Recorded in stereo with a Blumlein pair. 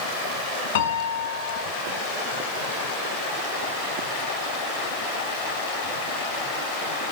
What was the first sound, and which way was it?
A piano, 55° left.